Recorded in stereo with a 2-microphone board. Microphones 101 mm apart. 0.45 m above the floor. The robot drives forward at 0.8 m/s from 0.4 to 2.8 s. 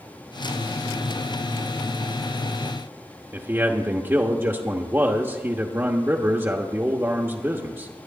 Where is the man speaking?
25° right (ahead or behind), 1.0 m.